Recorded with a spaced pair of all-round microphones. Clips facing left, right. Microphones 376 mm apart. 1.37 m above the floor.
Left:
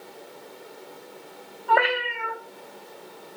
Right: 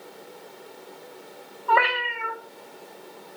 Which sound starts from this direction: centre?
A cat meowing, at 1.7 s.